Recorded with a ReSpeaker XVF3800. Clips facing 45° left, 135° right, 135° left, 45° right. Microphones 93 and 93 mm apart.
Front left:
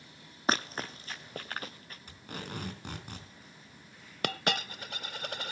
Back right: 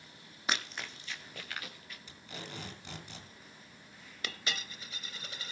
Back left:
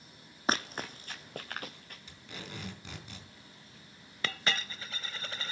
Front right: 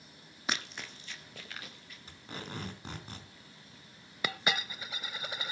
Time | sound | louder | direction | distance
0.5 | running footsteps | front left 6 dB, back left 6 dB | 90° left | 1.1 m
2.1 | tape being pulled | front left 5 dB, front right 3 dB | 5° left | 4 m
4.2 | a dropped coin | front left 9 dB, front right 1 dB | 30° left | 0.5 m